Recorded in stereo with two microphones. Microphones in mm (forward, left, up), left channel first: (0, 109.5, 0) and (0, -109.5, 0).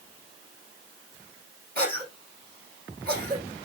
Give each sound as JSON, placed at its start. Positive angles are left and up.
{"t": 1.8, "sound": "a cough", "side_deg": -45, "distance_m": 6.0}